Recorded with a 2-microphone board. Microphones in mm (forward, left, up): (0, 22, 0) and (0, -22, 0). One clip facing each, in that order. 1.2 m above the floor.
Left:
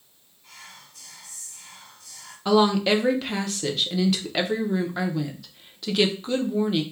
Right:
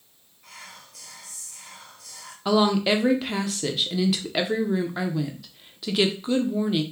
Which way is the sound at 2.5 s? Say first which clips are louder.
Left 1 dB; centre (ahead or behind).